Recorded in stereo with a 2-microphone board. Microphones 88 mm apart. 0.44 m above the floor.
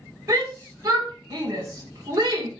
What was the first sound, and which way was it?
A shout, 40° right (ahead or behind).